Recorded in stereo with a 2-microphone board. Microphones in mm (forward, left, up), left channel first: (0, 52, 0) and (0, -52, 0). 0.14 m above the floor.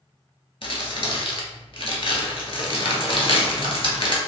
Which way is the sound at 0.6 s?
60° left (ahead or behind).